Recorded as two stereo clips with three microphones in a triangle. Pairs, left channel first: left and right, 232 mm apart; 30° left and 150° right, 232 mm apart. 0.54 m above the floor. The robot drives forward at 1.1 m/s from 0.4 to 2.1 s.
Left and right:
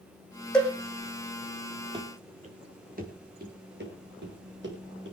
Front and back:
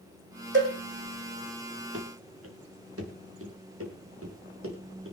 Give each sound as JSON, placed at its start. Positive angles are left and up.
{"t": 0.5, "sound": "a cowbell", "azimuth_deg": 175, "distance_m": 4.5}
{"t": 1.9, "sound": "running footsteps", "azimuth_deg": -160, "distance_m": 3.0}